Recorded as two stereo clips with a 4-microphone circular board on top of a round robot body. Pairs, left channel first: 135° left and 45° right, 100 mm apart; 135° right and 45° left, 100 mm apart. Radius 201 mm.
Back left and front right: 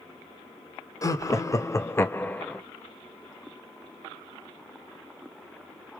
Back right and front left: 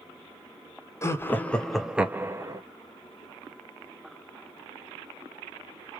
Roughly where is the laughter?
Behind.